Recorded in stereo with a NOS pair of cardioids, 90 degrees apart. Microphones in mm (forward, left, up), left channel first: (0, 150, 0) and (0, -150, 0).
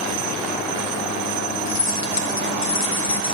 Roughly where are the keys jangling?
Ahead left.